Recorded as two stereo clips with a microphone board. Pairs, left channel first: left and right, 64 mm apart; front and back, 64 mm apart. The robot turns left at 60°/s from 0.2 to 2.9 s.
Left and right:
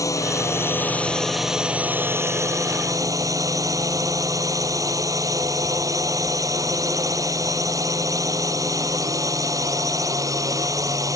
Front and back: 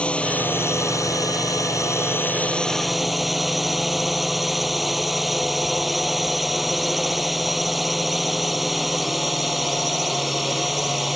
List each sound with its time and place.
0.0 s a drone: 70° left; by 11.2 s 90° right